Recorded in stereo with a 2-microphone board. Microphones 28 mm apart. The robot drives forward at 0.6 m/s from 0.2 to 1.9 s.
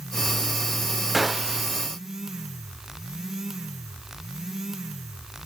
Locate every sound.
1.1 s a gunshot: 5° right (ahead or behind), 0.5 m